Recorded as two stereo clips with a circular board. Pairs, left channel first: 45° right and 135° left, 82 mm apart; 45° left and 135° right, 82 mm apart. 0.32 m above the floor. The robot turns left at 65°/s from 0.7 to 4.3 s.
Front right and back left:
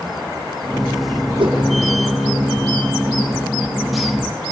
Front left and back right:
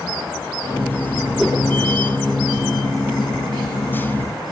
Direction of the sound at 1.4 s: 140° left.